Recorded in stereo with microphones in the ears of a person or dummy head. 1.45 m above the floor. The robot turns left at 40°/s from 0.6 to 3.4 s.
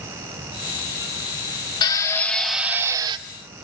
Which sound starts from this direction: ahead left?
A drill, at 1.8 s.